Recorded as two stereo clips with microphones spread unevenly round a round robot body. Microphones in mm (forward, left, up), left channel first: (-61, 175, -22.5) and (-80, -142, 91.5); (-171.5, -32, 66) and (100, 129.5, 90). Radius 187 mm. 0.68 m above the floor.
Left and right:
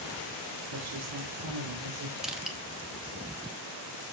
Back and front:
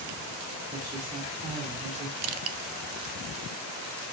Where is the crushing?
20° left, 1.1 m.